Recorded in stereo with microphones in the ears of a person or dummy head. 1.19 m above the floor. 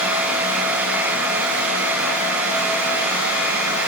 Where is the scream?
I don't hear a scream.